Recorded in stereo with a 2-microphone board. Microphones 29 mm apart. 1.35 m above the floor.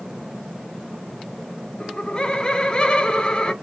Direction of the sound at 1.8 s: 30° left (ahead or behind).